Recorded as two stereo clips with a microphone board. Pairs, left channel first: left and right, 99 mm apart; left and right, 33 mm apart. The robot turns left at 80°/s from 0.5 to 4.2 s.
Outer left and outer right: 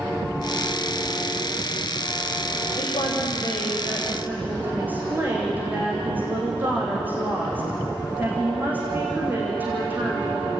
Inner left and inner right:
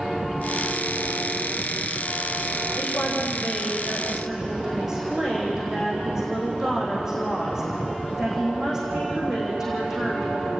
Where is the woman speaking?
100° left, 7.5 m; by 10.5 s 15° right, 7.5 m.